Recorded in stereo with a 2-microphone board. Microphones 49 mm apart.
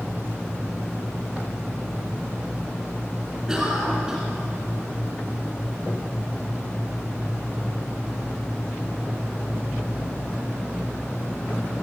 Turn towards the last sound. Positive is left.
turn(degrees=-15)  # may be behind; listen again after turning